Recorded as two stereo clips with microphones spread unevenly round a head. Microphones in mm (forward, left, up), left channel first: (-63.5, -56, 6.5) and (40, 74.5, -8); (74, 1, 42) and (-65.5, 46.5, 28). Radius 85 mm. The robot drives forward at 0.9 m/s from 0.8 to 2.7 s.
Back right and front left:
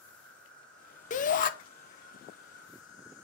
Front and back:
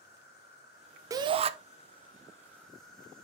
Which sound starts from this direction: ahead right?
An insect, at 0.0 s.